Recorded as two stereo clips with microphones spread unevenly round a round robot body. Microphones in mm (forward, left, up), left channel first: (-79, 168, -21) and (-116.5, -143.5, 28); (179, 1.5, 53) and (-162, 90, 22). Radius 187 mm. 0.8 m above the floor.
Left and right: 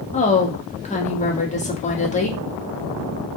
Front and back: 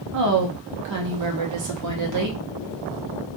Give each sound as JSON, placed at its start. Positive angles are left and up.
{"t": 0.1, "sound": "a woman speaking", "azimuth_deg": 145, "distance_m": 1.3}